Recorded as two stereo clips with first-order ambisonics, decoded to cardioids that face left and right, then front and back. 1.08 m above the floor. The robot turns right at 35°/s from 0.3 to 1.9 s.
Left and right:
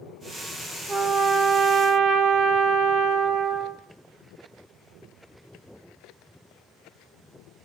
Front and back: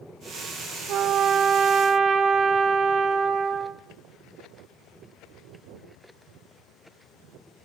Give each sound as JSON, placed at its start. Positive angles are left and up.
{"t": 0.9, "sound": "a trumpet", "azimuth_deg": -160, "distance_m": 0.9}